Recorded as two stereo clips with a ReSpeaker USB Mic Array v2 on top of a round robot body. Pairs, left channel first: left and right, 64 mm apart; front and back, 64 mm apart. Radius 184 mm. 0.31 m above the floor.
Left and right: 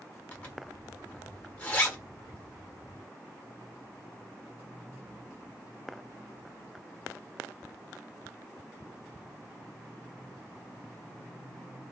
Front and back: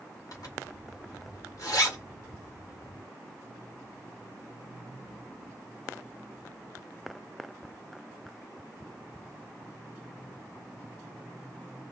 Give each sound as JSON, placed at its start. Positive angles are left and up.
{"t": 0.3, "sound": "a zipper", "azimuth_deg": 25, "distance_m": 1.7}